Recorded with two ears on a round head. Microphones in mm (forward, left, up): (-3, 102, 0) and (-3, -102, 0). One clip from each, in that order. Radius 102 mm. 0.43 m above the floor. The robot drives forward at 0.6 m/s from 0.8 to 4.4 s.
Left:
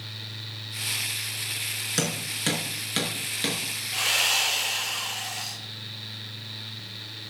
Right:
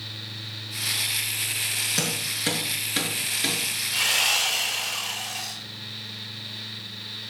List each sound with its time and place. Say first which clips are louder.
2.0 s hammering: right 2 dB; 15° left (ahead or behind), 6 m
3.9 s sawing: right 1 dB; centre (ahead or behind), 9.5 m